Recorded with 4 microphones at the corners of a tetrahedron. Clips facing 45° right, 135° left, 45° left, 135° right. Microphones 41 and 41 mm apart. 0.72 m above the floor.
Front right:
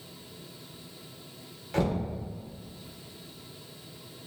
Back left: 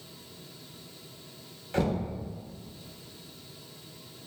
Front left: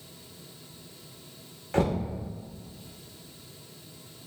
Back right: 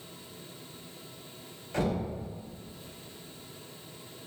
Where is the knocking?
45° left, 1.2 m.